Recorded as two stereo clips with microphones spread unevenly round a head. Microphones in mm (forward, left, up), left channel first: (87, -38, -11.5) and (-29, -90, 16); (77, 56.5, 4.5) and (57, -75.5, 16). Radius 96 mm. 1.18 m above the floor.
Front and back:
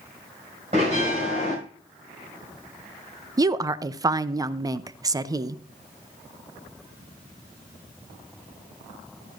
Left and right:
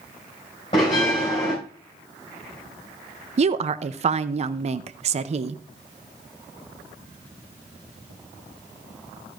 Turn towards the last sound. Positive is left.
turn(degrees=-90)